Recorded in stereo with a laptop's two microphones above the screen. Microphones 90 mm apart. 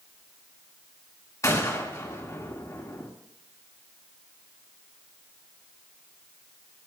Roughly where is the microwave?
I don't hear a microwave.